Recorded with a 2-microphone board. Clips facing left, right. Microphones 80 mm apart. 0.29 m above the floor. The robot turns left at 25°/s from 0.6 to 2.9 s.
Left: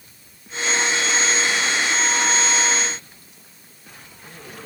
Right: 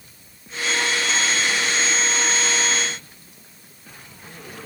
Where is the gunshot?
No gunshot in this recording.